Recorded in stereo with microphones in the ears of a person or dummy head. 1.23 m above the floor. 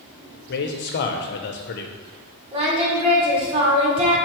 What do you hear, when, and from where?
0.5 s a man speaking: 50° left (ahead or behind), 0.8 m
2.5 s singing: 30° right (ahead or behind), 1.6 m